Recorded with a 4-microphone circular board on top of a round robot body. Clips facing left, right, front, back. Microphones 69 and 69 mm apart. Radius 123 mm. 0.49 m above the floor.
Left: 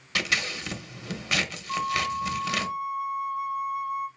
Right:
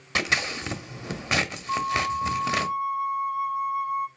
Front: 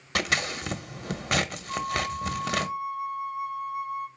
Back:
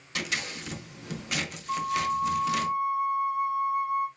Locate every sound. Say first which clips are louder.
0.1 s scissors: right 2 dB, front 6 dB; 30° right, 0.6 m
1.7 s a flute: right 2 dB, back 6 dB; 120° right, 2.5 m